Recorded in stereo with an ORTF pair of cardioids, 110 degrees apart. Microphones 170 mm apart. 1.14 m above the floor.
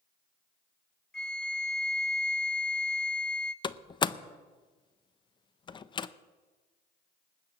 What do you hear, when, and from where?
1.1 s a flute: 5° left, 1.0 m
3.6 s a door slam: 30° left, 0.7 m